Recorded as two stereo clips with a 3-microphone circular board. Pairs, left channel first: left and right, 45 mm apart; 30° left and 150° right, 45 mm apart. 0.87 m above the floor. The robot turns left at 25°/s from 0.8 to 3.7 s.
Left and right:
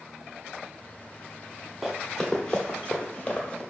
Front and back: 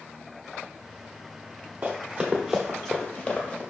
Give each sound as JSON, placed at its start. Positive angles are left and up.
{"t": 1.8, "sound": "running footsteps", "azimuth_deg": -175, "distance_m": 1.1}